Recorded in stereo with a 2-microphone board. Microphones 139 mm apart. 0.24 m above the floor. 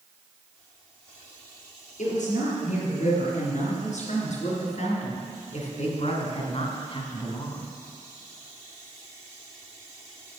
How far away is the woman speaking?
About 5.5 m.